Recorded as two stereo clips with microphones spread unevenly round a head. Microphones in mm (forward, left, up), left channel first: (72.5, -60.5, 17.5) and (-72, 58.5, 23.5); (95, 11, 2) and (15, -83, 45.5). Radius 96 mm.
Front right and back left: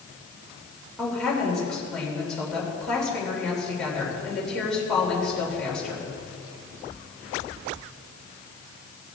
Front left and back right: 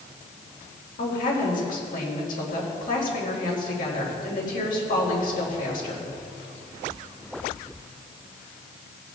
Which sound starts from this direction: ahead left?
A woman speaking, at 1.0 s.